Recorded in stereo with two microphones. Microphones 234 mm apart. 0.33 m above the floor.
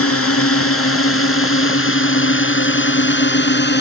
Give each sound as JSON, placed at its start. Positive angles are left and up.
{"t": 0.0, "sound": "a drone", "side_deg": 70}